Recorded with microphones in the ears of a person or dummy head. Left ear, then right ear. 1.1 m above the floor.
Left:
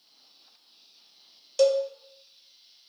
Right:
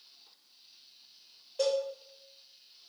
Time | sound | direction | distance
1.6 | a cowbell | 75° left (ahead or behind) | 0.6 m